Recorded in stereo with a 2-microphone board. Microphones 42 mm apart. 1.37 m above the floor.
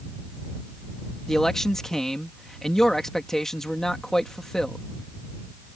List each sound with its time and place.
1.3 s a man speaking: 10° left (ahead or behind)